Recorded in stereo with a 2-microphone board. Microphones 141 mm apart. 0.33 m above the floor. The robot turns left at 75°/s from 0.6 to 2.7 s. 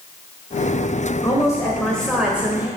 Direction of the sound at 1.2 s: 25° left (ahead or behind).